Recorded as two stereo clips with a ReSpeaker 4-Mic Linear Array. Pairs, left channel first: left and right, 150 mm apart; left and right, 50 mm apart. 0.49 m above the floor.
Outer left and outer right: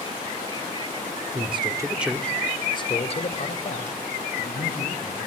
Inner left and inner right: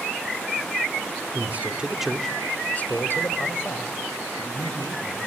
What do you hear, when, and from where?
1.3 s a man speaking: 40° right (ahead or behind), 1.6 m; by 5.3 s 65° left (ahead or behind), 4.5 m